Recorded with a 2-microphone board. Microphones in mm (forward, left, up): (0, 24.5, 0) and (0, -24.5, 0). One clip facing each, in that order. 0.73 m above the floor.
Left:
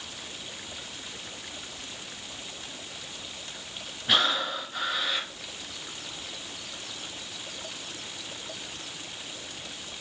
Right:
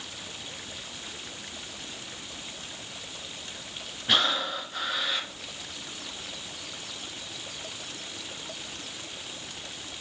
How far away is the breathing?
About 0.8 m.